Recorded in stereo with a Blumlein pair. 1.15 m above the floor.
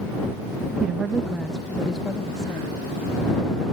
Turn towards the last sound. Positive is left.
turn(degrees=20)